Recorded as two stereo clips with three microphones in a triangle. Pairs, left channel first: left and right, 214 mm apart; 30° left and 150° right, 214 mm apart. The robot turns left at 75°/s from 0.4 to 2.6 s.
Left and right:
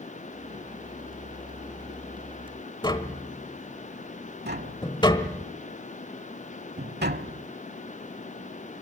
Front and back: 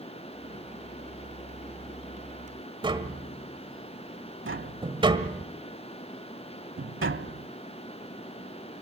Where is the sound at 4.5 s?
130° right, 0.8 m.